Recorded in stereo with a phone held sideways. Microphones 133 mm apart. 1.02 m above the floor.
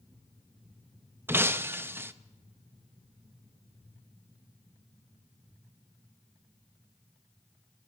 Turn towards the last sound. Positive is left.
turn(degrees=-15)  # may be behind; listen again after turning